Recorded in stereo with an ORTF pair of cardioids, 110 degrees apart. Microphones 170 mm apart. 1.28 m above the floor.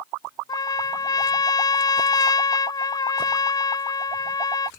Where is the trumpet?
25° left.